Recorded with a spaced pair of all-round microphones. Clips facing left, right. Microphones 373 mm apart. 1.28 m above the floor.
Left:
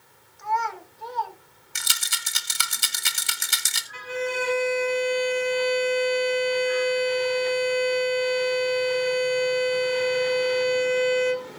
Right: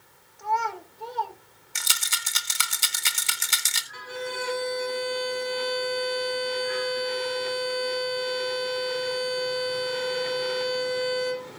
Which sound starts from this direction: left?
A rattle, at 1.8 s.